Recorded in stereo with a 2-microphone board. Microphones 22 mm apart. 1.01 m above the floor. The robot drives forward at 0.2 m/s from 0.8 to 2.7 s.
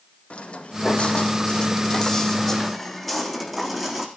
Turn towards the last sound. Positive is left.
turn(degrees=-5)  # may be behind; listen again after turning